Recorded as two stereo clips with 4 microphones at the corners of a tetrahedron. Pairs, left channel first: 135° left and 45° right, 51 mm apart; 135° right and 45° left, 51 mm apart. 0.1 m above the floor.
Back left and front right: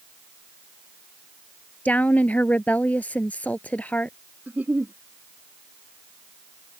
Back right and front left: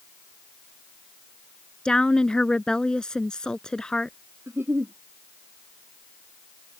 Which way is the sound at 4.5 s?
15° left.